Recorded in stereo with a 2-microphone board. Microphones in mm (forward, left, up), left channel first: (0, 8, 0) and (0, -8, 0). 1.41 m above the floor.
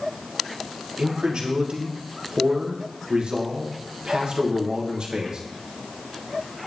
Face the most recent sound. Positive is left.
turn(degrees=-70)  # may be behind; listen again after turning